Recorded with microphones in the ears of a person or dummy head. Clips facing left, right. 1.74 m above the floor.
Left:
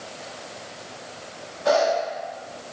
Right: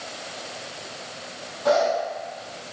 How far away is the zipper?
About 1.8 m.